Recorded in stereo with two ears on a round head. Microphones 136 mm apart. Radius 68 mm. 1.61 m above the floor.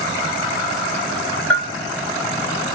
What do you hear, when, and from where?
1.5 s a bell: 5° left (ahead or behind), 1.9 m